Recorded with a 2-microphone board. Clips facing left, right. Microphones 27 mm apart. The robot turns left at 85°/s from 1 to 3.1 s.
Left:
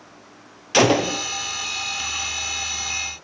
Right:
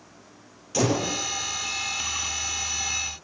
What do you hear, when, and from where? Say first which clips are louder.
0.7 s a gunshot: left 7 dB; 60° left (ahead or behind), 0.7 m; by 1.2 s 50° left (ahead or behind), 0.7 m